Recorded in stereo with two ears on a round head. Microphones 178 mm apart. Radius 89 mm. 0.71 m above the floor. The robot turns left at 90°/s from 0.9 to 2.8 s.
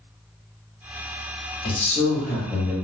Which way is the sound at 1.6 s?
30° left (ahead or behind).